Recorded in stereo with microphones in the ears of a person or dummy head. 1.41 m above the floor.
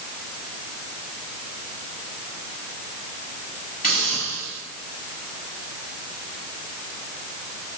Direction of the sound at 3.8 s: 45° left (ahead or behind).